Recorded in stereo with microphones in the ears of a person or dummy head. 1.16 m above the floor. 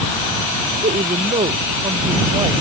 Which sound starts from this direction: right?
A woman speaking, at 0.8 s.